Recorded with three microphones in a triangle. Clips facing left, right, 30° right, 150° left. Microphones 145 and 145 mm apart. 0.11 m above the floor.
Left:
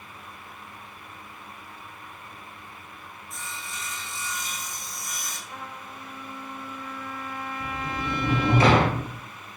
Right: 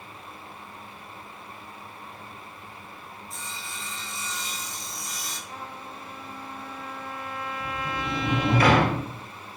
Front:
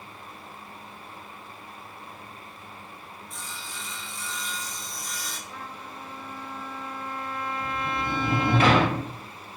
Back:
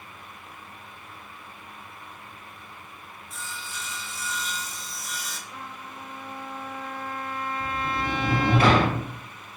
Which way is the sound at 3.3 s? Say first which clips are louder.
Left 2 dB, back 3 dB; 125° right.